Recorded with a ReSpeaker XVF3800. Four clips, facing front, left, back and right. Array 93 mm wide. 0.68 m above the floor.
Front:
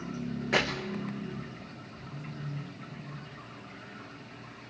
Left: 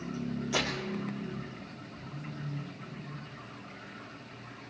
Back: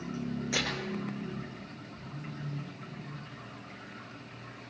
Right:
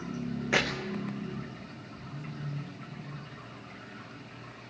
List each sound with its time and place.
0.5 s tearing paper: 55° right, 3.5 m